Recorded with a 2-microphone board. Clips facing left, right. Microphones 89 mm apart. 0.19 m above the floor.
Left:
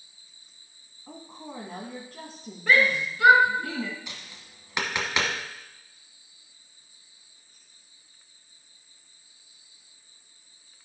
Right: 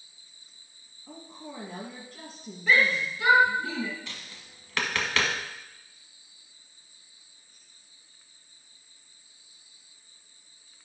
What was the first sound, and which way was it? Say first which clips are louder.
A woman speaking: left 1 dB; 40° left (ahead or behind).